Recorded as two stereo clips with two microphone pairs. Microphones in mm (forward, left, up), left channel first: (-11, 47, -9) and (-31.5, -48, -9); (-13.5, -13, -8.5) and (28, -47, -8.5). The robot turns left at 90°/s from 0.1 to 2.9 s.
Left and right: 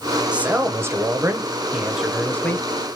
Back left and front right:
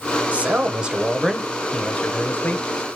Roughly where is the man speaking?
Ahead right.